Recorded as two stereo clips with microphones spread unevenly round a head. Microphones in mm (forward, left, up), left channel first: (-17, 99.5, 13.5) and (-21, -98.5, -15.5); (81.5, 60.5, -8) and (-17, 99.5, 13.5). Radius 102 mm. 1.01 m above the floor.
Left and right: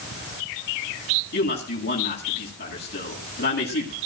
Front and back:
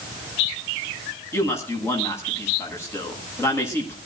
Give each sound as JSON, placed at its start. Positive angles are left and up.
{"t": 1.3, "sound": "a man speaking", "azimuth_deg": 45, "distance_m": 8.5}